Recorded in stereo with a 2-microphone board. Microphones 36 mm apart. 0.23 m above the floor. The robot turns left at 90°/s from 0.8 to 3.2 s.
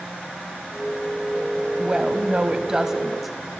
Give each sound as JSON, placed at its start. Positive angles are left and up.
{"t": 1.8, "sound": "a woman speaking", "side_deg": -15, "distance_m": 1.2}